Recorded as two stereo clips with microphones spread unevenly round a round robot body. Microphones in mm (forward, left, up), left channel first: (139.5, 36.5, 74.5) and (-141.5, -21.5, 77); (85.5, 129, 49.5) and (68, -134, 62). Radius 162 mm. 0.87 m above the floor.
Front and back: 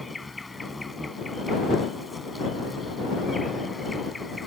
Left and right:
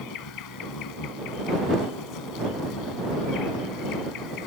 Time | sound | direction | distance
0.0 | an insect | 100° left | ?